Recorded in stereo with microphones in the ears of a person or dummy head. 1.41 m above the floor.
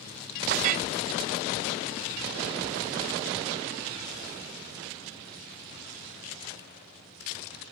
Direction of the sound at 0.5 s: 35° right (ahead or behind).